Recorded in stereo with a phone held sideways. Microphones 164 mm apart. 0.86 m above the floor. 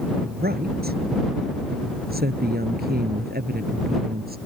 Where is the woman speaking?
80° right.